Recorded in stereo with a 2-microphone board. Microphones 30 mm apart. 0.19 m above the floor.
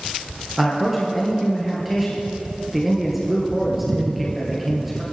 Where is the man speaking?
Centre (ahead or behind), 3 m.